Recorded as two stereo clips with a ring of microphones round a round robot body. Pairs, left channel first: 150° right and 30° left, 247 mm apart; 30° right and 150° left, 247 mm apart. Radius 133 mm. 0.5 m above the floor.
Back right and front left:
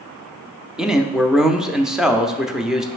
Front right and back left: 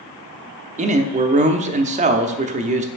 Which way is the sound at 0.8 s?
115° left.